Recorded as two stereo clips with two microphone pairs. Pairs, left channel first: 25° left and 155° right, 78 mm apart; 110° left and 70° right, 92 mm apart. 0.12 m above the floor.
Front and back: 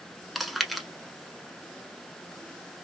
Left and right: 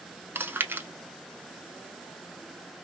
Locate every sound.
0.3 s chewing: 65° right, 0.7 m